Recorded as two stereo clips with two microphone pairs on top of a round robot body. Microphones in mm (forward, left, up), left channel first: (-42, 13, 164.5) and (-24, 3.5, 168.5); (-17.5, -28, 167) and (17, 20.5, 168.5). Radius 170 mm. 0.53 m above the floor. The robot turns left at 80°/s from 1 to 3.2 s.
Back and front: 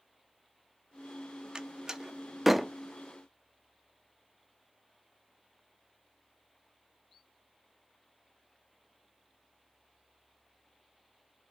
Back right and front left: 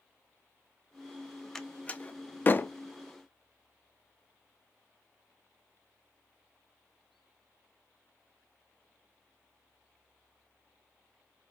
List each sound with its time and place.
1.6 s a door slam: 50° right, 0.6 m; by 2.7 s 140° right, 0.6 m